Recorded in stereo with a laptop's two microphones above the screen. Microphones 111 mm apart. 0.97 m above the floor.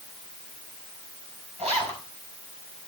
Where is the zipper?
75° right (ahead or behind), 4 m.